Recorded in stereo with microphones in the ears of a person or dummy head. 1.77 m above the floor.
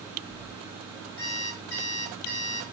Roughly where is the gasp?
No gasp in this recording.